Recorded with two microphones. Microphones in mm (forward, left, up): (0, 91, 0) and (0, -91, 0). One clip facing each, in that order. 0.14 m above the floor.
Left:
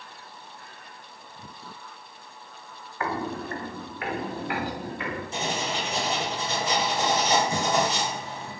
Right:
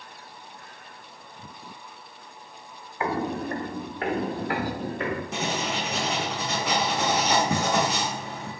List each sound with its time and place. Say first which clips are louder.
3.0 s footsteps: right 3 dB; 20° right (ahead or behind), 0.7 m; by 5.2 s 40° right (ahead or behind), 2.5 m
5.3 s writing: right 1 dB; 60° right (ahead or behind), 1.6 m